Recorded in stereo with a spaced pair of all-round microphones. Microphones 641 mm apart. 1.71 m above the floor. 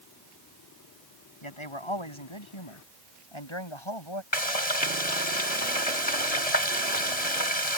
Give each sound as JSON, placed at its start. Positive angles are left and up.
{"t": 1.4, "sound": "a man speaking", "side_deg": 50}
{"t": 4.3, "sound": "frying", "side_deg": 80}